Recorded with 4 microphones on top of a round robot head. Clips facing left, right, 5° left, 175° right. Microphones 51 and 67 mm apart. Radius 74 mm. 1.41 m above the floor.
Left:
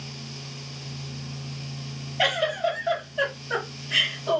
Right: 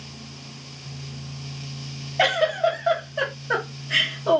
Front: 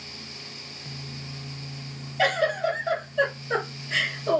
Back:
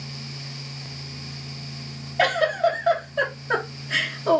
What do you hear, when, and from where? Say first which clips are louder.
2.2 s a giggle: right 4 dB, back 3 dB; 130° right, 0.8 m